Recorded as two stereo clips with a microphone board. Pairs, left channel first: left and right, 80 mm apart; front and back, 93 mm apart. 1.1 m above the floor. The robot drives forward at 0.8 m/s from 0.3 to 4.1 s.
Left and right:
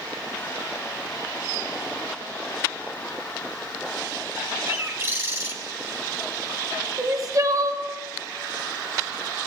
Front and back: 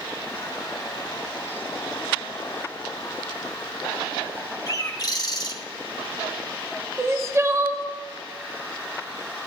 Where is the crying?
125° right, 0.7 m.